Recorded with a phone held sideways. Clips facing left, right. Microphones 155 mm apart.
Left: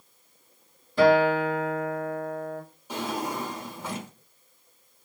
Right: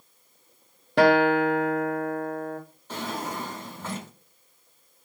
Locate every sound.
1.0 s a guitar: 75° right (ahead or behind), 0.8 m
2.9 s a drawer: 10° left (ahead or behind), 1.5 m